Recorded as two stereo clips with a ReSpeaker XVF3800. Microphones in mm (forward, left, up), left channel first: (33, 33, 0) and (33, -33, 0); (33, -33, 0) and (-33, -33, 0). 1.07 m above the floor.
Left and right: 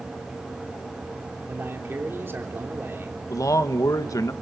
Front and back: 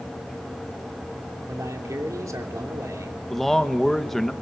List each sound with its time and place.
1.5 s a man speaking: 145° right, 3 m
3.3 s a man speaking: 85° left, 1.3 m